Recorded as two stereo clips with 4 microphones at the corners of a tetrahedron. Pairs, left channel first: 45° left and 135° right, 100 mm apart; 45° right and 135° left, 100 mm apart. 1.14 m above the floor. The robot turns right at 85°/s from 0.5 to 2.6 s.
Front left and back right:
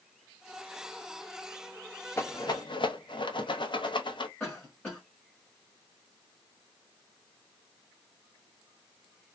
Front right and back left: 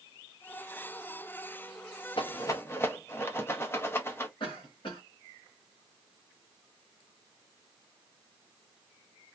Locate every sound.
2.2 s a rattle: 15° right, 0.6 m; by 4.3 s 20° left, 0.6 m
4.4 s a cough: 35° right, 1.2 m